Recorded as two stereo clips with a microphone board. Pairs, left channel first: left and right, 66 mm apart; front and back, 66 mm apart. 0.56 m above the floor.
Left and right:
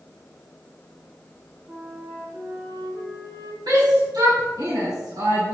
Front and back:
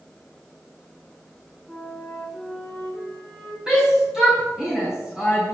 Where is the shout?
100° right, 5 m.